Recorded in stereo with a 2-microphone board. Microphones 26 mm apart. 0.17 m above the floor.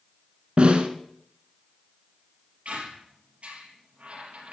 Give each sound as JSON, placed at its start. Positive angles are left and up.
{"t": 0.6, "sound": "a snare drum", "side_deg": -55, "distance_m": 1.1}
{"t": 2.6, "sound": "a squeak", "side_deg": -65, "distance_m": 3.5}